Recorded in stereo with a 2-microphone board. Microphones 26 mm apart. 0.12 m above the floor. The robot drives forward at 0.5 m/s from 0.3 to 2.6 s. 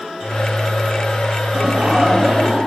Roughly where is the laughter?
Right.